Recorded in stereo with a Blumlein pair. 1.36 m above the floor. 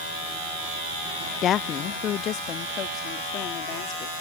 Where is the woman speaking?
25° left; by 4.2 s 35° left.